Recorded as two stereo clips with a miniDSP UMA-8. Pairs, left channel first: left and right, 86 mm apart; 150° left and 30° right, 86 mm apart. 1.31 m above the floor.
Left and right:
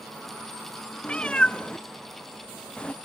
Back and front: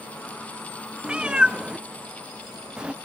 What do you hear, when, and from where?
1.0 s a cat meowing: 30° left, 0.5 m